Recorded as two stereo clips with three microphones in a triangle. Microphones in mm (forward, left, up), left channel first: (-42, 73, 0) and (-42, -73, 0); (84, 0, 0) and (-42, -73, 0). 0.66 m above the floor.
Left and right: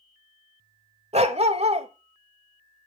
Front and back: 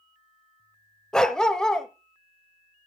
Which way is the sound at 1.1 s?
55° right.